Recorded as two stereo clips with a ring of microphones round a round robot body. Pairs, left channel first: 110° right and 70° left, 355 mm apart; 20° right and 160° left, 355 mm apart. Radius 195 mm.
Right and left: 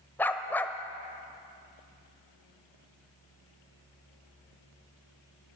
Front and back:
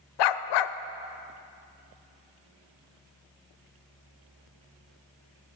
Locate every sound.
0.2 s a dog barking: 30° right, 0.7 m